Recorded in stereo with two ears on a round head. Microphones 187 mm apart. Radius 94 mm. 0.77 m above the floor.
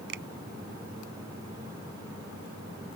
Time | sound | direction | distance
0.1 | a finger snap | 55° right (ahead or behind) | ?